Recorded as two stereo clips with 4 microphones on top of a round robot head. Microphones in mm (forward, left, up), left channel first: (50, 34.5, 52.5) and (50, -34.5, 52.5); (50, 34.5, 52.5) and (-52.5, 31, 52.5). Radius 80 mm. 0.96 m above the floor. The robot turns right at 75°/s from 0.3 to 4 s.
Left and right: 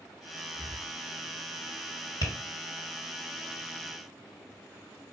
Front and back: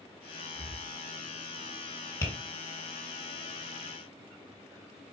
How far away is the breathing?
About 1.8 m.